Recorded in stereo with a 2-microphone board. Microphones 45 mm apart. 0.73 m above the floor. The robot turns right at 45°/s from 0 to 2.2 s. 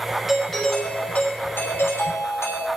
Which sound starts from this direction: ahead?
A doorbell, at 0.3 s.